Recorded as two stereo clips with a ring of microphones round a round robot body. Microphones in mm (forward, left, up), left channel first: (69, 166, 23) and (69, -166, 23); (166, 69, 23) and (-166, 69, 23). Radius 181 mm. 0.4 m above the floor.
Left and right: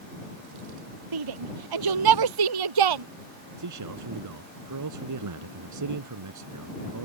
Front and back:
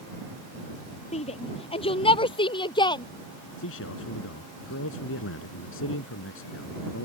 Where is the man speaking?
55° right.